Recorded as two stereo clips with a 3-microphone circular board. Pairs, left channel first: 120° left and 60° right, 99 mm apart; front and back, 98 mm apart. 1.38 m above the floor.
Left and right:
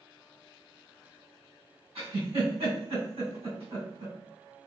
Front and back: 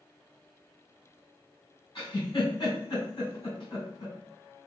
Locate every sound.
1.9 s a giggle: 35° right, 1.8 m